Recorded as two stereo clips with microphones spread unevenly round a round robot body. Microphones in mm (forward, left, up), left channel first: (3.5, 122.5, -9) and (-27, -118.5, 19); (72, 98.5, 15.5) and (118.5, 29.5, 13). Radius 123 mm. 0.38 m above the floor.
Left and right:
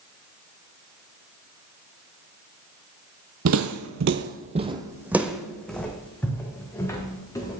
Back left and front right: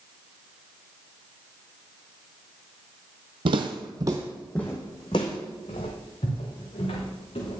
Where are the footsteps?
75° right, 0.7 m; by 7.6 s 160° left, 2.5 m.